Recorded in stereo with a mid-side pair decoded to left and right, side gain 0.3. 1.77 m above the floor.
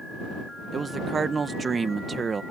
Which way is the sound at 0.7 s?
55° right.